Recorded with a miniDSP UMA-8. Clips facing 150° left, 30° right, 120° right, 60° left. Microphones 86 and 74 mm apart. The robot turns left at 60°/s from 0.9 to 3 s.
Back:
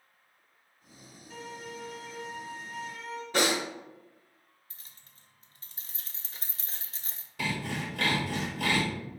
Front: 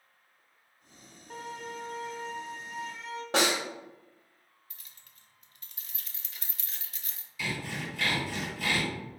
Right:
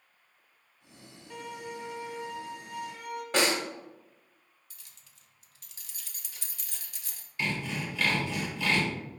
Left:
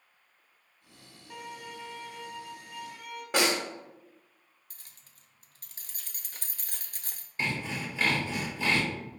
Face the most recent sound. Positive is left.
turn(degrees=120)